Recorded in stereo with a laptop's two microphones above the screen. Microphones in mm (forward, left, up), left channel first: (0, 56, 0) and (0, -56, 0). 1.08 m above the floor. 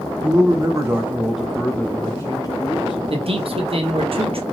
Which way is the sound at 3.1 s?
55° right (ahead or behind).